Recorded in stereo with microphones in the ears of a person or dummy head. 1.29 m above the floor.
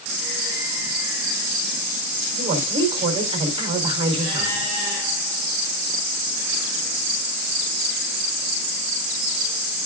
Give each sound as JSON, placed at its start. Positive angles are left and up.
{"t": 2.4, "sound": "a woman speaking", "side_deg": -30, "distance_m": 4.0}